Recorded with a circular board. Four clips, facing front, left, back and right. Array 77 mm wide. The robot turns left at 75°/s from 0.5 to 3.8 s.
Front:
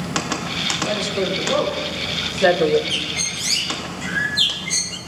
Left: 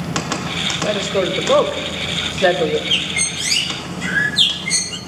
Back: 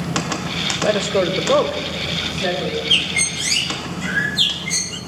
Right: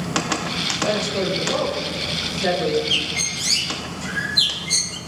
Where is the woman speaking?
175° left, 2 m; by 2.8 s 25° left, 2 m.